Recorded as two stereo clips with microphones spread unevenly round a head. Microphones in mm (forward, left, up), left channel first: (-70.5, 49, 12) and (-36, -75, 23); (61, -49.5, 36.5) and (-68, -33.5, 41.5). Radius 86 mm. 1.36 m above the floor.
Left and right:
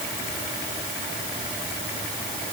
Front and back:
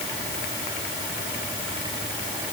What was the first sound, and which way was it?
Only background noise.